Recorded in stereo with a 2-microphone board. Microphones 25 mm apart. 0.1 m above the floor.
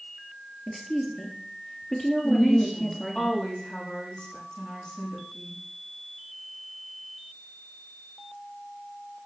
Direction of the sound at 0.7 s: 20° left (ahead or behind).